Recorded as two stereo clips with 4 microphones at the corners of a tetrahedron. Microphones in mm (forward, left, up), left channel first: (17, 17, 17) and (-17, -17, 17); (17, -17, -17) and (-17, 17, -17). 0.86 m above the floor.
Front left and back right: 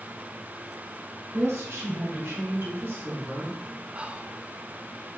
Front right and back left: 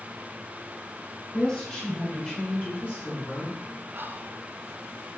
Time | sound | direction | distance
1.3 | a woman speaking | 115° right | 4 m
3.9 | whispering | 165° left | 0.8 m